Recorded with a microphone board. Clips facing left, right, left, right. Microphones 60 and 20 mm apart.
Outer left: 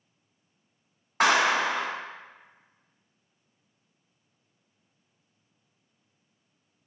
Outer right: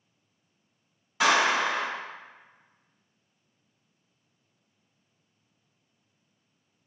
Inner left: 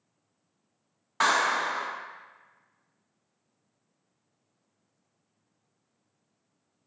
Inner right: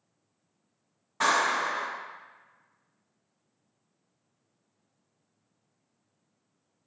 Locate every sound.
1.2 s a clap: 45° left (ahead or behind), 1.7 m